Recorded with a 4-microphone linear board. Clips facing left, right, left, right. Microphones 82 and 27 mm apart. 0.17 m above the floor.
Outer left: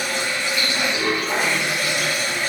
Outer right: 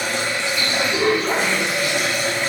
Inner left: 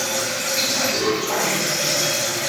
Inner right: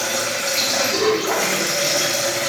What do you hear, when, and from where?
0.0 s running water: 85° right, 3 m